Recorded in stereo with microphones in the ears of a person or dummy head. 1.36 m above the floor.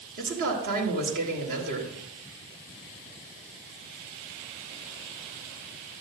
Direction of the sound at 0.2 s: 60° right (ahead or behind).